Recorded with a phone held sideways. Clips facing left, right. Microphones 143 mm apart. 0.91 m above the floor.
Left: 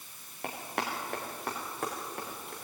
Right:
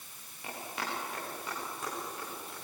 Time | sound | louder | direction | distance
0.4 | running footsteps | left 4 dB | 60° left (ahead or behind) | 5.5 m